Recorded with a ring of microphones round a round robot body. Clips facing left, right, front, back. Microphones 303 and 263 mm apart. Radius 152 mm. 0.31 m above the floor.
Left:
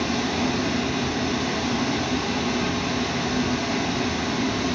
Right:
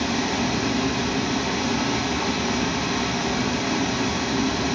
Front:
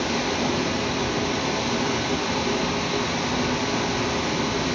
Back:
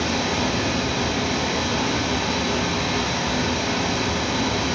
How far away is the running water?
About 0.7 m.